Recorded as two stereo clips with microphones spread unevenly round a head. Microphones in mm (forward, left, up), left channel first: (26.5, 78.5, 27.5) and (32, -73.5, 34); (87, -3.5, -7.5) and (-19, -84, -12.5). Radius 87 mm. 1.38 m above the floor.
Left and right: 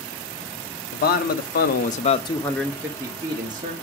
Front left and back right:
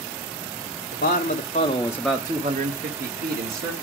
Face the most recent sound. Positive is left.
turn(degrees=-145)